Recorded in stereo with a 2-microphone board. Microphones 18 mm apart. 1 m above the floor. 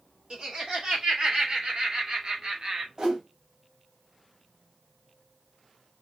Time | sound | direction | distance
0.3 | laughter | 80° right | 4 m
3.0 | a whoosh | 60° right (ahead or behind) | 2.5 m